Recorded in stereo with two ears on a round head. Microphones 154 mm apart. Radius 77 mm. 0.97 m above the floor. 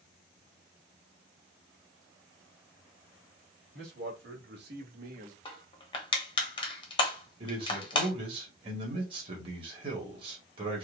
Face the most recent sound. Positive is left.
turn(degrees=-30)  # may be behind; listen again after turning